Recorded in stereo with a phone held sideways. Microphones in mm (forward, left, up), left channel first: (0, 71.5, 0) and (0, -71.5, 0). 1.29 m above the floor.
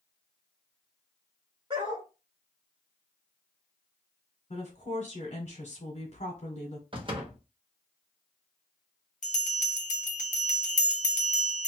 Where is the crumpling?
I don't hear crumpling.